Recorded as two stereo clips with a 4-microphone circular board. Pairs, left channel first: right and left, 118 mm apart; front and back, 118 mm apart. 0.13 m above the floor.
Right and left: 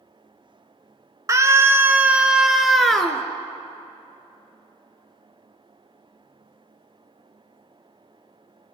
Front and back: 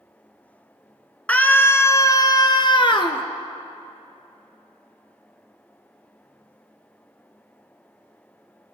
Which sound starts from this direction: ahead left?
A scream, at 1.3 s.